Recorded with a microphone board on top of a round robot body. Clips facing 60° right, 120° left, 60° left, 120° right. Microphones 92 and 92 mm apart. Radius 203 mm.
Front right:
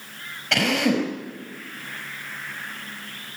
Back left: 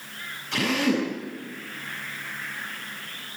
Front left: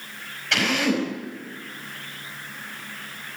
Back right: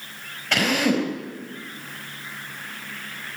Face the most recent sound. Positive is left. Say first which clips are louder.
# front right 2 dB, back right 2 dB
turn(degrees=-70)